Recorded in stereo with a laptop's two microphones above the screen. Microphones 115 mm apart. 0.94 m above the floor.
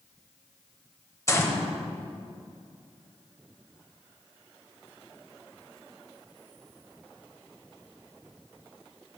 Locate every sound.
1.3 s a gunshot: 25° left (ahead or behind), 0.9 m